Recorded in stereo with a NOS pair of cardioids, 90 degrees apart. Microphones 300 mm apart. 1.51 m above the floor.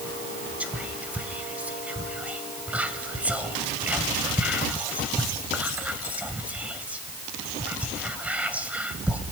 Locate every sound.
0.6 s whispering: 5° right, 0.9 m